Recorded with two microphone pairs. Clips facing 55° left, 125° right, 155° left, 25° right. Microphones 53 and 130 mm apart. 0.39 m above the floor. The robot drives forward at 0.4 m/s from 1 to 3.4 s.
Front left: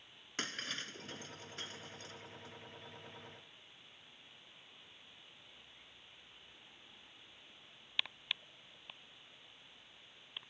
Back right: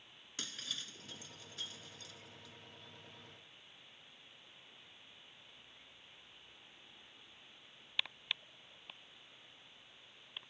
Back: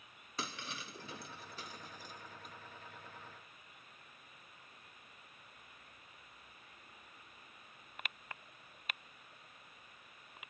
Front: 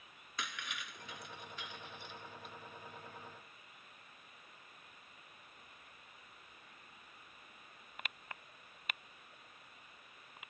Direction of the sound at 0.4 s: 100° left.